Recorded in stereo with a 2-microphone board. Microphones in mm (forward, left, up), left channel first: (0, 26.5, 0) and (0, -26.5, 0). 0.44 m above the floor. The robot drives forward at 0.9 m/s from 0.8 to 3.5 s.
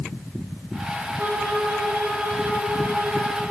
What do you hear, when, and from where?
1.2 s a violin: 75° right (ahead or behind), 4 m; by 3.4 s 50° right (ahead or behind), 5 m